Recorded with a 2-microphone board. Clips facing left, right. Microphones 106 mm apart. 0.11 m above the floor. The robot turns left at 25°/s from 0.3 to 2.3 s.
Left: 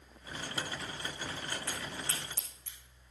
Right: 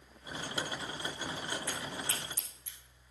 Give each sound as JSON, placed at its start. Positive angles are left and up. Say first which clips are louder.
{"t": 1.7, "sound": "a crack", "louder": "right 1 dB", "side_deg": 80, "distance_m": 6.0}